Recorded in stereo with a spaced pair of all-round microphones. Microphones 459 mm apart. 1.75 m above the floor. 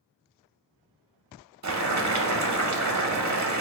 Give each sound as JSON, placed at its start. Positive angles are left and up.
{"t": 1.6, "sound": "boiling", "side_deg": -40, "distance_m": 0.5}